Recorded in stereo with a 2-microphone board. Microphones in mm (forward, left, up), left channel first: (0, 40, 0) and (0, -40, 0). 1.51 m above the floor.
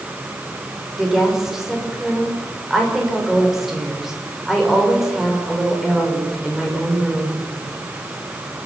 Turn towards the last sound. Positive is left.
turn(degrees=-5)  # may be behind; listen again after turning